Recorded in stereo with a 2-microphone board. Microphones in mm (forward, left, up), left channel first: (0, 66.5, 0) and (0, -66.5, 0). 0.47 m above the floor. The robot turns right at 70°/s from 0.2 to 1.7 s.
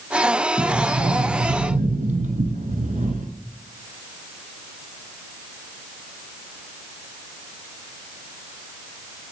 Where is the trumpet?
I don't hear a trumpet.